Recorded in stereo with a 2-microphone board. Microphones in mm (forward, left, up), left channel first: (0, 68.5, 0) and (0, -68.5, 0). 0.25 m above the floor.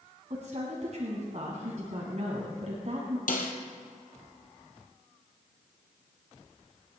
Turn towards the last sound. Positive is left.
turn(degrees=80)